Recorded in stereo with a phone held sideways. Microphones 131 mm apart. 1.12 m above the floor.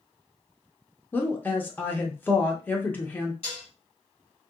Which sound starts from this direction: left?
Dishes clattering, at 3.4 s.